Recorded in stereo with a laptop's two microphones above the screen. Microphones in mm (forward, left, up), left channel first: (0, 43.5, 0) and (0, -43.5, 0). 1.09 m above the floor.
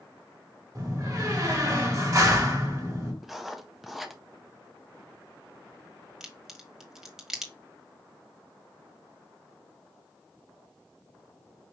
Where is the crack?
5° right (ahead or behind), 1.8 m.